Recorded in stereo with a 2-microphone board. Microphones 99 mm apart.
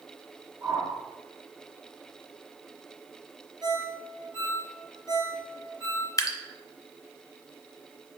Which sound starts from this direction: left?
Dripping, at 6.2 s.